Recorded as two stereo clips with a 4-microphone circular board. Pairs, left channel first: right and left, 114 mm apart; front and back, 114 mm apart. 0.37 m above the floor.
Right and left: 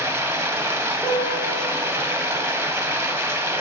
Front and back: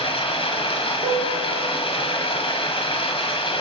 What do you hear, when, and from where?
0.0 s running water: 30° left, 1.1 m
1.0 s a piano: 155° right, 2.5 m